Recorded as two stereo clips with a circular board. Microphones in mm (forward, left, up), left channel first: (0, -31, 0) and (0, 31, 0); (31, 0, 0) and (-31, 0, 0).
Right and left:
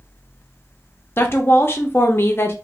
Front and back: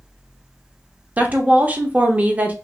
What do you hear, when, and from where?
1.2 s a woman speaking: 125° right, 0.7 m